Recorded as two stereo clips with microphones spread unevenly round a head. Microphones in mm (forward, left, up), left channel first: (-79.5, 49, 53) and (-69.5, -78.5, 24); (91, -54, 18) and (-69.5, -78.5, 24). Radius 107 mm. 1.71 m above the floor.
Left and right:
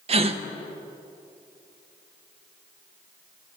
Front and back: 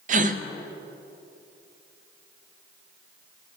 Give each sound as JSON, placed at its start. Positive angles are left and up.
{"t": 0.1, "sound": "a gasp", "azimuth_deg": -135, "distance_m": 0.6}